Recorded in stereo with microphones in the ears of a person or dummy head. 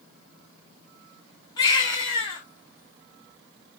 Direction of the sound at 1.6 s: 25° left (ahead or behind).